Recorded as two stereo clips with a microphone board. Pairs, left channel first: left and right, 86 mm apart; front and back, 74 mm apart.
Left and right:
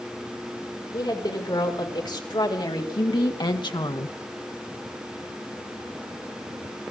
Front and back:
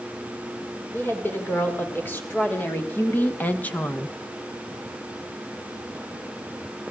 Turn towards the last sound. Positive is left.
turn(degrees=70)